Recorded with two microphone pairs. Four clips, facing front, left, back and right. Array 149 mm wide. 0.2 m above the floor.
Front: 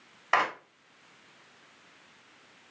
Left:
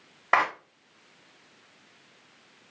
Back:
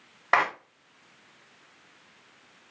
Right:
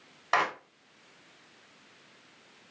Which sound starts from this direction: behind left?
A clap, at 0.3 s.